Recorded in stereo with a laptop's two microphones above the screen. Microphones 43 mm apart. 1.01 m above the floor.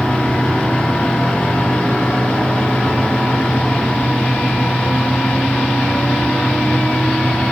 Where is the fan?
25° left (ahead or behind), 4 m.